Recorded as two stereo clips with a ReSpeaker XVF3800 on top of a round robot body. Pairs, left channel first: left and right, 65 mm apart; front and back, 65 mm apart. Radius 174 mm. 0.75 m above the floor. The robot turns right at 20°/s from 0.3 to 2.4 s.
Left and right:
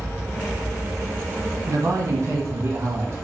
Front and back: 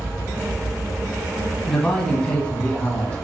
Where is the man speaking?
75° right, 1.6 m; by 3.1 s 60° right, 1.6 m.